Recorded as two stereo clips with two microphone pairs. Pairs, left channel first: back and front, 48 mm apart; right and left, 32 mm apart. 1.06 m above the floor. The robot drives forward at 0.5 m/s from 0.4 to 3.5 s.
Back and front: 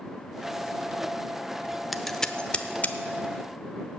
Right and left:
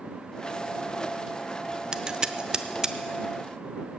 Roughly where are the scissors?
Left.